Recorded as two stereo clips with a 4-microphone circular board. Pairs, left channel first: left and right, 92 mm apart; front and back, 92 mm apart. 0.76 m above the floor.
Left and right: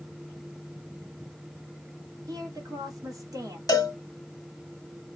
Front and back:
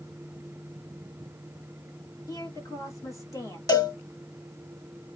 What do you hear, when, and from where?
2.3 s a woman speaking: 45° right, 1.9 m
3.7 s a cowbell: 45° left, 1.2 m